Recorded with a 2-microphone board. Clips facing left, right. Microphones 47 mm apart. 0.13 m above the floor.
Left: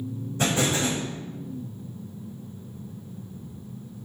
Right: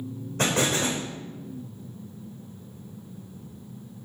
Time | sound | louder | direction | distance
0.4 | an explosion | even | 60° right (ahead or behind) | 5 m